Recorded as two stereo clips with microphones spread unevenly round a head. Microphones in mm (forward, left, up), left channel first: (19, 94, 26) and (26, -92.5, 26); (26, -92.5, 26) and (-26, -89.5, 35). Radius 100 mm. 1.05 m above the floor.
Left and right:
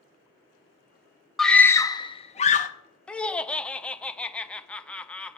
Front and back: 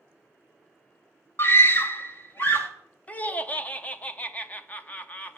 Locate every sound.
1.4 s a scream: 5° left, 0.8 m; by 2.7 s 50° left, 1.1 m
3.1 s laughter: 10° left, 0.7 m